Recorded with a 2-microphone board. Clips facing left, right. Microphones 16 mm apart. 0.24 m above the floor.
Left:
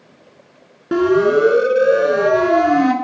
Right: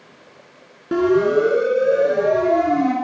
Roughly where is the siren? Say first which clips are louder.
Left 2 dB; centre.